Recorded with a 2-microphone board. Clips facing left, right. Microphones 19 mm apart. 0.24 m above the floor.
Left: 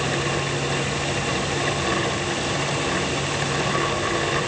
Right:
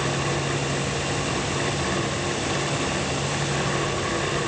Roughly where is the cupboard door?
No cupboard door in this recording.